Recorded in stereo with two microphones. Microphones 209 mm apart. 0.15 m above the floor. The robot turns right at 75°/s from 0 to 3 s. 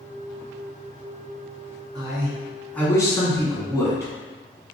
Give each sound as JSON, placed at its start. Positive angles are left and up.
{"t": 1.9, "sound": "a man speaking", "side_deg": -20, "distance_m": 1.8}